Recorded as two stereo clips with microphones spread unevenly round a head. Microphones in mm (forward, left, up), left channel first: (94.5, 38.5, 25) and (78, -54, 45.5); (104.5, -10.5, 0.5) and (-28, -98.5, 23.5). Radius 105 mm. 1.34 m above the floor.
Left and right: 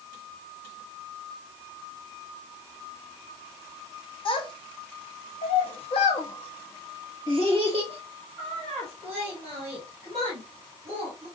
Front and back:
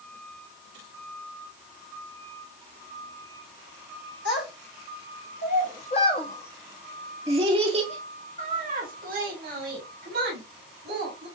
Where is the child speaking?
50° left, 1.4 m; by 11.3 s 170° right, 2.5 m.